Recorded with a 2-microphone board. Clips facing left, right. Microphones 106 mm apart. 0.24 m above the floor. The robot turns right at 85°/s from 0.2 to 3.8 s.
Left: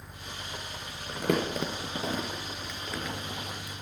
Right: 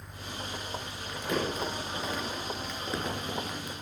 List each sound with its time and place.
1.1 s crumpling: 45° left (ahead or behind), 3 m; by 3.7 s 75° right (ahead or behind), 3 m